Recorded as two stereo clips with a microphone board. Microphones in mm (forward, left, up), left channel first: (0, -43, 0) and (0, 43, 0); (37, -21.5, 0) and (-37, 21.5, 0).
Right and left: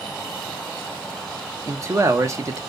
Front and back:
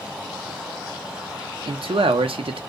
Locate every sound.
1.7 s a man speaking: 145° left, 0.8 m